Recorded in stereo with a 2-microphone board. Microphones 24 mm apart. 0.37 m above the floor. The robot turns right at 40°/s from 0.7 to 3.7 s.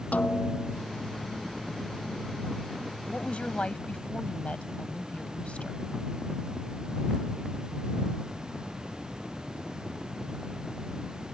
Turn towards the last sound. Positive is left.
turn(degrees=60)  # may be behind; listen again after turning